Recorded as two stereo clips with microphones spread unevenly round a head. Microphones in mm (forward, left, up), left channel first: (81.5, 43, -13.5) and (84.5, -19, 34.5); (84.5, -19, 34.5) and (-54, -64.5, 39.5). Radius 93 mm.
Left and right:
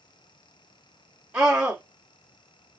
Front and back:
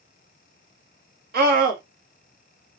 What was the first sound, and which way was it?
A scream, straight behind.